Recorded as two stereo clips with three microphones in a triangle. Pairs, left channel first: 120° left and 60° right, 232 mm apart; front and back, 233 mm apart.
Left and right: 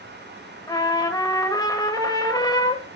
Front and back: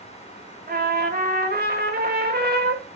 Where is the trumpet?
175° right, 1.0 m.